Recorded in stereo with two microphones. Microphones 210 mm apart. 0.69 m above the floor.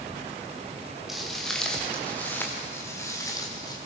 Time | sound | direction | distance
1.1 | footsteps | centre (ahead or behind) | 5.5 m